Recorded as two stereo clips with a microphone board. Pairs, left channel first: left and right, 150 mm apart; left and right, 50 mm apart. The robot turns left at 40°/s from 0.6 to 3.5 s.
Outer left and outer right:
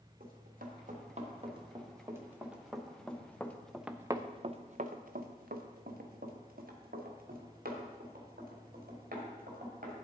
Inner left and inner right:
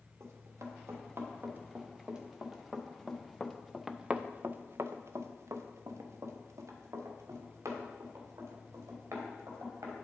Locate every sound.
0.2 s running footsteps: 70° right (ahead or behind), 2.5 m